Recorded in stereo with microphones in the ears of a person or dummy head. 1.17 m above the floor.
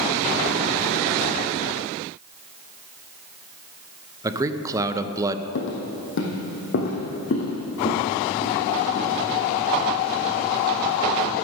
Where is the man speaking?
20° right (ahead or behind), 0.7 m.